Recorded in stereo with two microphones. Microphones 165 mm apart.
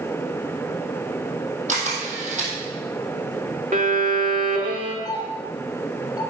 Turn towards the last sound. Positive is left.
turn(degrees=25)  # may be behind; listen again after turning